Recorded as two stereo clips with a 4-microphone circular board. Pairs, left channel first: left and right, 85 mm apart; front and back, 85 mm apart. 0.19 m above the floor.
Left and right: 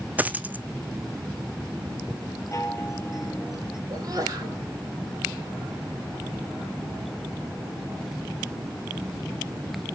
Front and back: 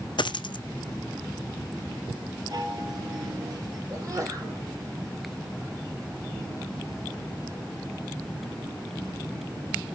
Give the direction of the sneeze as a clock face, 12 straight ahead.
4 o'clock.